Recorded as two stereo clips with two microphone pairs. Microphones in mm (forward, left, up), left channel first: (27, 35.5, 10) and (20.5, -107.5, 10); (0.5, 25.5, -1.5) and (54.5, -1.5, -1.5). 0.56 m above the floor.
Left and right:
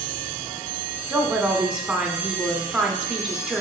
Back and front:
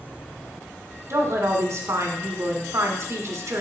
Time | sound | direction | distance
1.1 | a woman speaking | 10° right | 1.5 m